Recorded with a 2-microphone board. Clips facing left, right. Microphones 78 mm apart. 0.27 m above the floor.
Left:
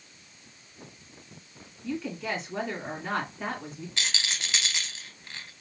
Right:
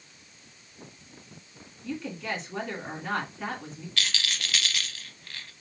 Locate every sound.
1.8 s a woman speaking: 5° left (ahead or behind), 3 m
4.0 s a rattle: 20° left (ahead or behind), 0.6 m